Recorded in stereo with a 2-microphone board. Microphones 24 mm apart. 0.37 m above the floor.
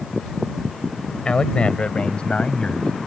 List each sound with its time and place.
1.2 s a man speaking: 50° left (ahead or behind); by 2.9 s 55° left (ahead or behind)